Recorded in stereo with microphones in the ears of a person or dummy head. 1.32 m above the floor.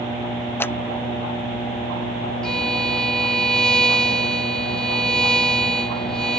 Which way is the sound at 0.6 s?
10° left (ahead or behind).